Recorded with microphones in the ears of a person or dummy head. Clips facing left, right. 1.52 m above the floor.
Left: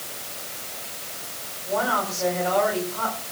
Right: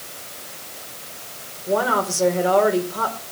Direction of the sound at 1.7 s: 55° right (ahead or behind).